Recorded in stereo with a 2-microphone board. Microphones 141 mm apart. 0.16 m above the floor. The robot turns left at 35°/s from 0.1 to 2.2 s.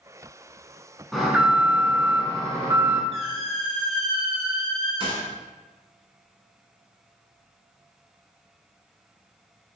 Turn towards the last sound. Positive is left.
turn(degrees=-40)  # may be behind; listen again after turning